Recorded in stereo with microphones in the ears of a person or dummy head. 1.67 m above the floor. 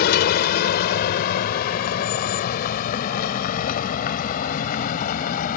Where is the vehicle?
60° left (ahead or behind); by 5.6 s 50° left (ahead or behind).